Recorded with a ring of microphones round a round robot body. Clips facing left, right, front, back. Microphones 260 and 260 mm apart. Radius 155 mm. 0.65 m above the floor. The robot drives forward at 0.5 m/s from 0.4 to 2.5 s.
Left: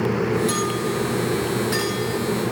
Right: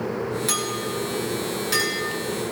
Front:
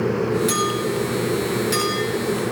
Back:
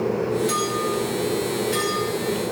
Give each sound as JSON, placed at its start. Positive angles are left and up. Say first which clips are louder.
{"t": 0.5, "sound": "a clink", "louder": "left 5 dB, front 2 dB", "azimuth_deg": -45, "distance_m": 8.0}